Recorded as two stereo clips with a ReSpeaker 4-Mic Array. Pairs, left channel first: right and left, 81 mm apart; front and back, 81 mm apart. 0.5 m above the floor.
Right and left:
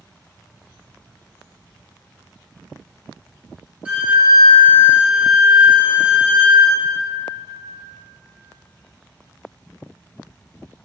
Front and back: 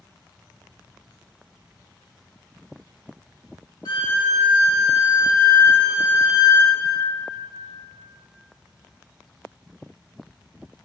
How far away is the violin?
About 0.7 m.